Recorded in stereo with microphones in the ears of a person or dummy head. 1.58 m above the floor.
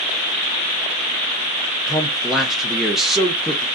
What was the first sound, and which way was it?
A man speaking, centre (ahead or behind).